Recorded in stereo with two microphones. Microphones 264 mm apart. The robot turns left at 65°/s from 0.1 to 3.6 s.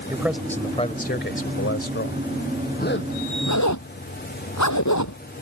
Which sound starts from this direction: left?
A zipper, at 2.8 s.